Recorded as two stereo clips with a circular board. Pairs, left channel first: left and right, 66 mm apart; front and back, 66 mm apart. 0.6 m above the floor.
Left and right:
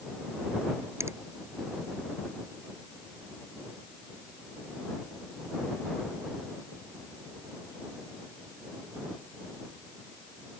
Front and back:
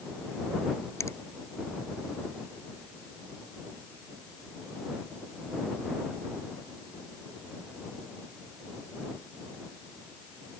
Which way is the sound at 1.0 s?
45° right.